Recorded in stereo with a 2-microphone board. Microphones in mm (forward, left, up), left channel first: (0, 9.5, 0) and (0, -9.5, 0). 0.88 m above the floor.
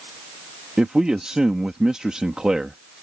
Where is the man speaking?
45° right (ahead or behind).